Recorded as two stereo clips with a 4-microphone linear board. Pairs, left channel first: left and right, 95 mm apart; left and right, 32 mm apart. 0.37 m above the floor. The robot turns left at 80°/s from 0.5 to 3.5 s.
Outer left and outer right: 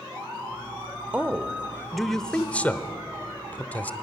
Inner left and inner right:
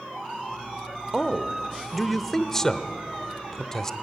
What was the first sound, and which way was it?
A man speaking, 20° right (ahead or behind).